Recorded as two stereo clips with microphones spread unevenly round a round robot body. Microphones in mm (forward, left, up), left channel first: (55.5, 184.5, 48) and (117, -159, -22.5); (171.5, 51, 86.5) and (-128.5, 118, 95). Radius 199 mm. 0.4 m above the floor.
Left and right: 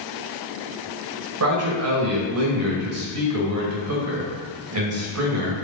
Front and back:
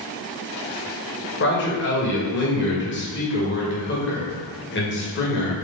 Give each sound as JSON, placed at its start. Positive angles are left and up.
{"t": 1.4, "sound": "a man speaking", "azimuth_deg": -55, "distance_m": 2.0}